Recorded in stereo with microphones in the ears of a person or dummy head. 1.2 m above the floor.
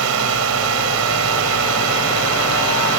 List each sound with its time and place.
0.0 s a drone: 80° right